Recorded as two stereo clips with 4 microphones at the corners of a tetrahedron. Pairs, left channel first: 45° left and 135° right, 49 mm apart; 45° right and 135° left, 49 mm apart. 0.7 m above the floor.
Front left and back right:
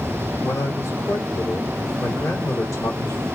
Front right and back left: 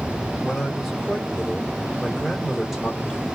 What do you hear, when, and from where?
0.4 s a man speaking: 50° left, 1.6 m